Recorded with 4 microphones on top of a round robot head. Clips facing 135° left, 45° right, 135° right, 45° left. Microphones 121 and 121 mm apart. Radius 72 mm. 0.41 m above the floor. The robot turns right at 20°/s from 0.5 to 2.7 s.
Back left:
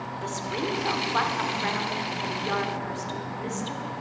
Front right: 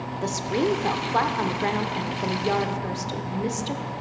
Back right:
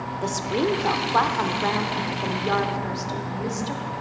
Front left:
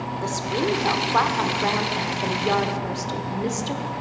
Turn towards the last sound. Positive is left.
turn(degrees=-20)